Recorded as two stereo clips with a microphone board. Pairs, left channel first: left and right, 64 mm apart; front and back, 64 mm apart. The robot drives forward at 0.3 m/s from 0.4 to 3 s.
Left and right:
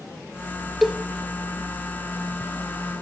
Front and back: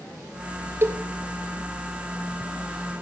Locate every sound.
0.8 s a cowbell: 175° right, 0.6 m